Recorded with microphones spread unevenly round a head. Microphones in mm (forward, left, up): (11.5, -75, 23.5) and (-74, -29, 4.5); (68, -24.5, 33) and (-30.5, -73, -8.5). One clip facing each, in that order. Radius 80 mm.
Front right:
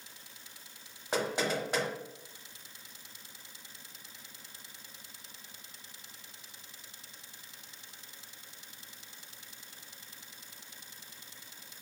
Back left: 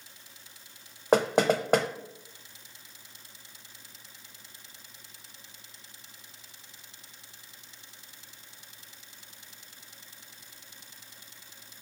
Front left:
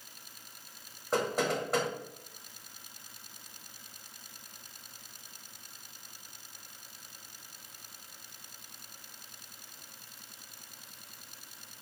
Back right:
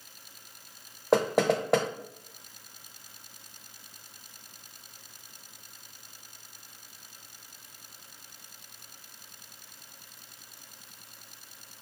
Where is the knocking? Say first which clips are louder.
Back left 9 dB, back right 7 dB; 170° left, 0.7 m.